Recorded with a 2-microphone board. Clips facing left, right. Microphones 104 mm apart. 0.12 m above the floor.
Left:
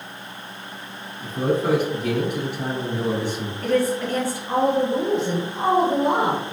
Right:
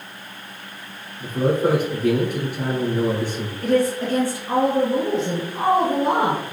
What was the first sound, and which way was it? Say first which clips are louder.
A man speaking: right 2 dB; 50° right (ahead or behind).